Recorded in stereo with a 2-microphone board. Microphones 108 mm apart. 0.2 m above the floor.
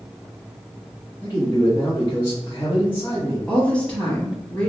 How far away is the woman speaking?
About 1.1 m.